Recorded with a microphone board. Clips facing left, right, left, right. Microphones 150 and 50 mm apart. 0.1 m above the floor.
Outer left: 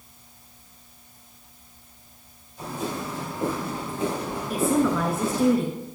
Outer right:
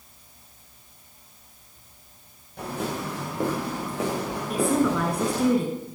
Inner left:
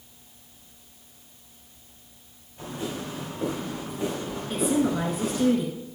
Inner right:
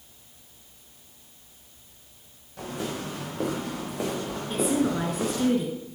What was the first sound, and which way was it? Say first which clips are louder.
Footsteps: outer right 1 dB, inner right 1 dB; 70° right (ahead or behind).